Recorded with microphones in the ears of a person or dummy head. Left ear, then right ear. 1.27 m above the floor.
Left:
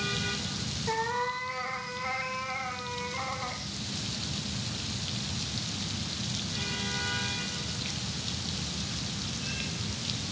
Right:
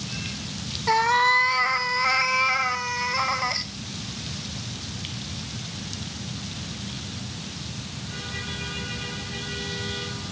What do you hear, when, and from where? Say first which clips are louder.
0.9 s a cat meowing: right 12 dB; 50° right (ahead or behind), 1.2 m